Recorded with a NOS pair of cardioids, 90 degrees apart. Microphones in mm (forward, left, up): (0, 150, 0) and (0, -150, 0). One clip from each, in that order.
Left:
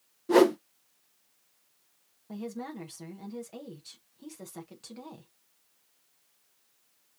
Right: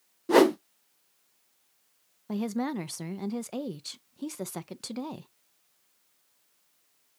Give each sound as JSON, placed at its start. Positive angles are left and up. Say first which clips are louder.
{"t": 0.3, "sound": "a whoosh", "louder": "right 1 dB", "azimuth_deg": -15, "distance_m": 0.6}
{"t": 2.3, "sound": "a woman speaking", "louder": "right 7 dB", "azimuth_deg": -55, "distance_m": 0.9}